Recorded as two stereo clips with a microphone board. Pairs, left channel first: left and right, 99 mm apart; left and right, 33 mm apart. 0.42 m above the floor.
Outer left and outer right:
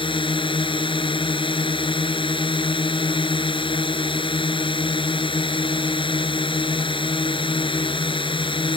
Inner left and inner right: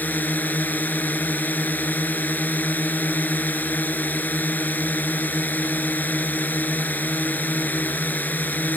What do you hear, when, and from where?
0.0 s a drone: 60° left (ahead or behind)